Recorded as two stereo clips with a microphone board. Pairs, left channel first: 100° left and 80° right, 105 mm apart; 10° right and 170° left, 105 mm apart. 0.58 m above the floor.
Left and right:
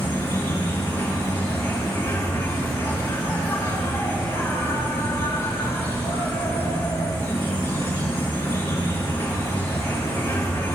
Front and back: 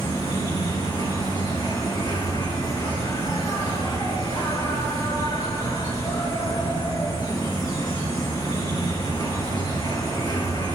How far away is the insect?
About 7 m.